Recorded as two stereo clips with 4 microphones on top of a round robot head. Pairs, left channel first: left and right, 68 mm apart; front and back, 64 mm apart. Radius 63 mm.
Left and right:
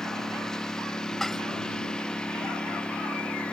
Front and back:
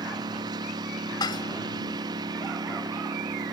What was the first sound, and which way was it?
A lawn mower, 175° left.